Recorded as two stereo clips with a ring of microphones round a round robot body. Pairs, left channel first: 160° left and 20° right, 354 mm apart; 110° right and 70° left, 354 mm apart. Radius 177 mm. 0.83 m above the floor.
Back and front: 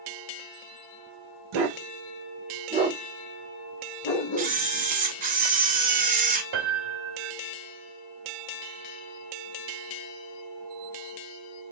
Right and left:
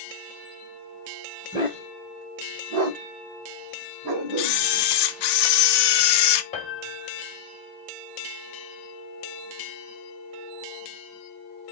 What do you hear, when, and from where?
1.5 s a dog barking: 10° right, 0.9 m; by 4.6 s 110° left, 1.2 m
4.4 s a camera shutter: 90° right, 0.5 m
6.5 s a piano: 40° right, 1.1 m